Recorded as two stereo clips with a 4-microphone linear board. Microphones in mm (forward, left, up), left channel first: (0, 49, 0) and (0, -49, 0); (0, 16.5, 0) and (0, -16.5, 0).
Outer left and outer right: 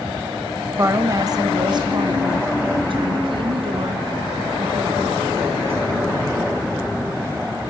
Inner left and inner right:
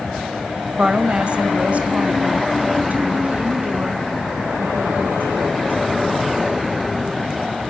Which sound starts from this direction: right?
A woman speaking, at 0.8 s.